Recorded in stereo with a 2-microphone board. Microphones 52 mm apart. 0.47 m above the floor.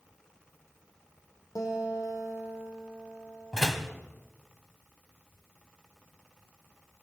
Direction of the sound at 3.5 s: 10° right (ahead or behind).